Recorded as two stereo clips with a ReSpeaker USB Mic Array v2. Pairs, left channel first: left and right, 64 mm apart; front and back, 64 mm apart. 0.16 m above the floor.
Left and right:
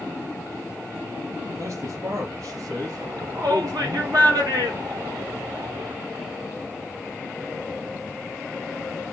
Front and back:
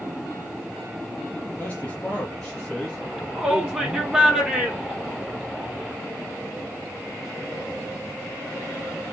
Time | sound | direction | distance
1.6 | a man speaking | 60° right | 3 m
3.0 | a shout | 100° right | 5.5 m